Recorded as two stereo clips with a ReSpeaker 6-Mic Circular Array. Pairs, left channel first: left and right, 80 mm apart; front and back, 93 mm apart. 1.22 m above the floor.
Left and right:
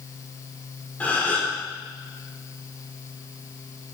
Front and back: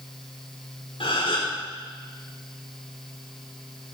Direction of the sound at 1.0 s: 20° left.